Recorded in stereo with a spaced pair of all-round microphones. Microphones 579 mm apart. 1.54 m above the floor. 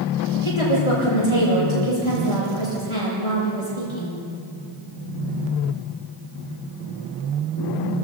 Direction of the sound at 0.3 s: 60° left (ahead or behind).